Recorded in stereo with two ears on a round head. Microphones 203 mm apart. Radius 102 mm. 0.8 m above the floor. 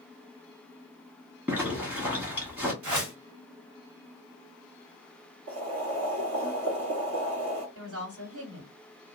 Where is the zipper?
10° right (ahead or behind), 0.8 m.